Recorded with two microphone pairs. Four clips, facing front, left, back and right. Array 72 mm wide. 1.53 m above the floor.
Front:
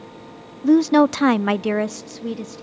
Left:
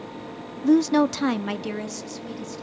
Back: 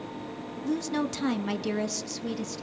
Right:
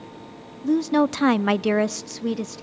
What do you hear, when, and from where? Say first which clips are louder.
0.6 s a woman speaking: left 2 dB, front 15 dB; 20° left, 0.6 m; by 2.6 s 75° right, 1.2 m